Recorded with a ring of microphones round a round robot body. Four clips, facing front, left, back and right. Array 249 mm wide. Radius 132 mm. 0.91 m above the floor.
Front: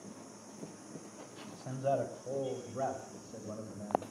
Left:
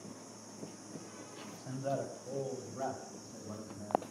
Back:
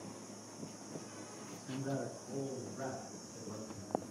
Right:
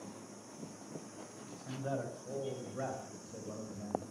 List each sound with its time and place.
1.5 s a man speaking: 5° left, 5 m; by 4.0 s 40° right, 5 m